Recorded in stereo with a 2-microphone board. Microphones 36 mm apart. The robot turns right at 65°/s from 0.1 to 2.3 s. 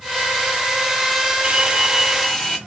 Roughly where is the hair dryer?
Ahead right.